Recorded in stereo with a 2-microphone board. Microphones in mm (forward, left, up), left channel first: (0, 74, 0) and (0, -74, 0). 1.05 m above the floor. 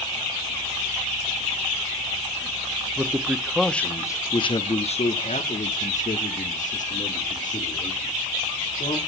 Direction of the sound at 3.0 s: 20° right (ahead or behind).